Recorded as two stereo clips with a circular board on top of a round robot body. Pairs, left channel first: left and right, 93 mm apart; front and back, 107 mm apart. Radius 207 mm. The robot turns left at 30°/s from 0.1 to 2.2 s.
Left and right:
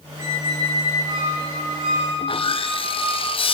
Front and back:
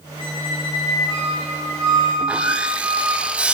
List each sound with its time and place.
0.2 s a squeak: 30° right, 4 m; by 3.2 s 90° right, 4 m
2.2 s sawing: 100° left, 0.7 m